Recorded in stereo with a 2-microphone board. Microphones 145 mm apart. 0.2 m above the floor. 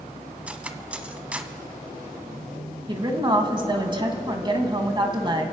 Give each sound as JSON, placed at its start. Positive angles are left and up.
{"t": 0.5, "sound": "cutlery clinking", "side_deg": -10, "distance_m": 0.8}
{"t": 2.9, "sound": "a woman speaking", "side_deg": -30, "distance_m": 1.5}